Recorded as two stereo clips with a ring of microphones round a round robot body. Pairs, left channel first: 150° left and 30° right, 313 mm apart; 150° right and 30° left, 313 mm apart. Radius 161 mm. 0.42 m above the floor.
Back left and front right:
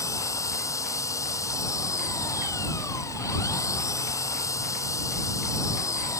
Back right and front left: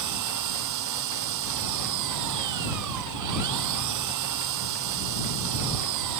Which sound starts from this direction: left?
An engine running, at 0.0 s.